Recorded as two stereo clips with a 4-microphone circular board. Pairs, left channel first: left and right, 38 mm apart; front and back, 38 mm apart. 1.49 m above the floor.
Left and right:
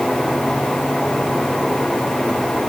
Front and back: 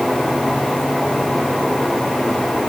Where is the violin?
No violin in this recording.